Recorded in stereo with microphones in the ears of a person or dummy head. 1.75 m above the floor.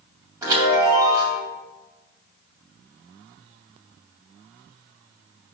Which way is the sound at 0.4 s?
20° right (ahead or behind).